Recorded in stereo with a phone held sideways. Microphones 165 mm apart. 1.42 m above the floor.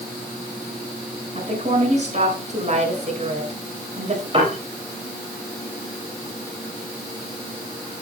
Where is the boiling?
No boiling in this recording.